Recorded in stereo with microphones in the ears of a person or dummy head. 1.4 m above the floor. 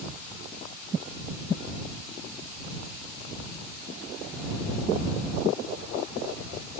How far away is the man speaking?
No man speaking in this recording.